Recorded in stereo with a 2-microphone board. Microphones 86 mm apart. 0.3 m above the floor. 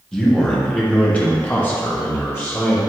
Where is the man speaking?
10° left (ahead or behind), 1.3 m; by 2.8 s 25° left (ahead or behind), 1.0 m.